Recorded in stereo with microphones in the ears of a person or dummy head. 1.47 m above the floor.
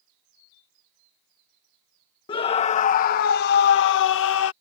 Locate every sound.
2.3 s a scream: 25° left (ahead or behind); by 4.5 s 75° left (ahead or behind)